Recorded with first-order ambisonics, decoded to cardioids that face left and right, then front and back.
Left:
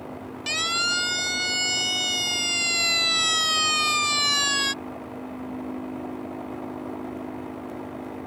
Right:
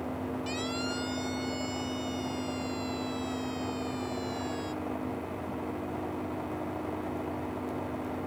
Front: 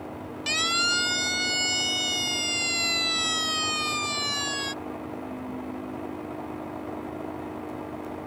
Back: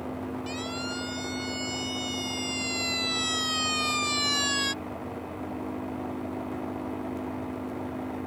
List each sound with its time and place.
0.5 s a siren: 45° left; by 4.7 s 105° left